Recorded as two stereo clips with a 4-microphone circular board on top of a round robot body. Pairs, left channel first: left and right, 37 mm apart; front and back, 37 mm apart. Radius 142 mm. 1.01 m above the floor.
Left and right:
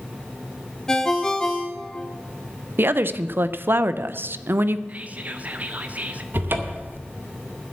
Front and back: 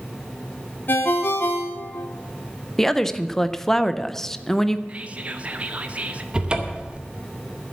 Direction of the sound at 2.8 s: 80° right.